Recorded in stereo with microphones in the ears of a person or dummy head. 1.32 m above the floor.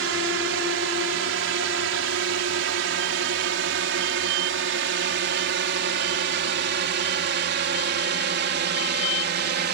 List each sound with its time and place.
0.0 s a drone: 60° right (ahead or behind); by 9.8 s 50° right (ahead or behind)